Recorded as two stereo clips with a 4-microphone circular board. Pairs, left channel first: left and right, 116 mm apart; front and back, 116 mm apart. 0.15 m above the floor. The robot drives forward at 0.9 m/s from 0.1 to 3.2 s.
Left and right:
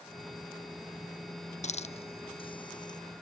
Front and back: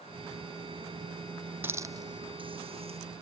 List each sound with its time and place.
1.6 s a hiss: 110° left; by 3.0 s 145° left